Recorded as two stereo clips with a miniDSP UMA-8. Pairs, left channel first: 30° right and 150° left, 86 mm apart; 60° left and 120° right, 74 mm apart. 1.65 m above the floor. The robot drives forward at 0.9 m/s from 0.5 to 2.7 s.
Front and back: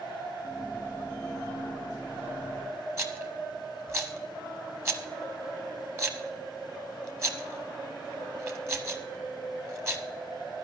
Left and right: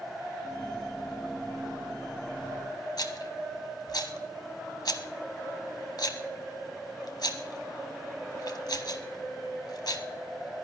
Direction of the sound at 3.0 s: 95° left.